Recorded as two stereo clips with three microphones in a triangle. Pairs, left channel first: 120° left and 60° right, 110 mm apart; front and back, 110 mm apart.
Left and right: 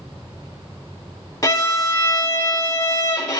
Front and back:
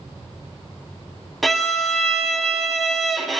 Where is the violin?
90° left, 0.6 m.